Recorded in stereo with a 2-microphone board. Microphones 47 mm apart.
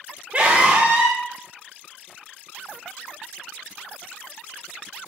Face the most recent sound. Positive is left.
turn(degrees=-30)  # may be behind; listen again after turning